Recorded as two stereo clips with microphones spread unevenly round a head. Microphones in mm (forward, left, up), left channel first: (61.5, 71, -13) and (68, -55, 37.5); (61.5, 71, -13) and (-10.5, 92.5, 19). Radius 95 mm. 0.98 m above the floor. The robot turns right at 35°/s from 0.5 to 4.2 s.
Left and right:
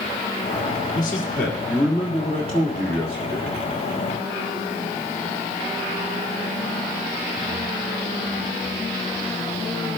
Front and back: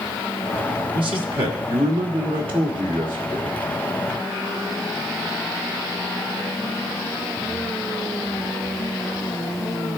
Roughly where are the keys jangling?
I don't hear keys jangling.